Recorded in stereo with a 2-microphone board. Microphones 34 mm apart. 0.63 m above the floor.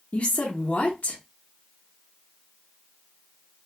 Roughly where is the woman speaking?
Left.